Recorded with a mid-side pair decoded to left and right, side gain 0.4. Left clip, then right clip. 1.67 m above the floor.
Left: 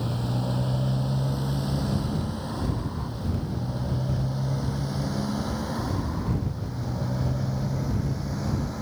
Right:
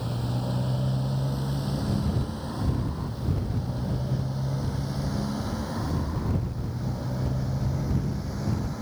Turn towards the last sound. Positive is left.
turn(degrees=20)